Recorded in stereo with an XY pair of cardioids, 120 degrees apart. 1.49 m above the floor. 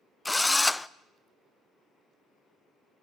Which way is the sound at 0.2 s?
10° left.